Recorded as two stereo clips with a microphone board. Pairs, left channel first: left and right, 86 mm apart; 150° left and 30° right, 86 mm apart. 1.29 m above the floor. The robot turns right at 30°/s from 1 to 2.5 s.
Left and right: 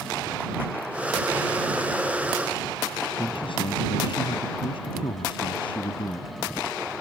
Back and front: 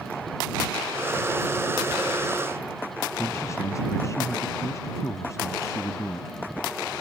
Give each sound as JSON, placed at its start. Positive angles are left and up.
{"t": 3.2, "sound": "a man speaking", "azimuth_deg": 95}